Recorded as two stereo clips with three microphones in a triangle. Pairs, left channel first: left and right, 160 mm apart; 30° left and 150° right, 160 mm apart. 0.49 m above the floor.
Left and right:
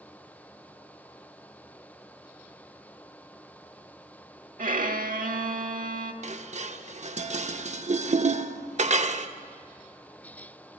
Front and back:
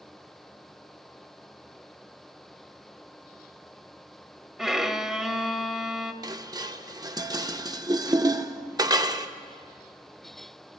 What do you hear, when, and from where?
4.6 s a violin: 60° right, 0.7 m
6.2 s dishes clattering: 90° right, 0.5 m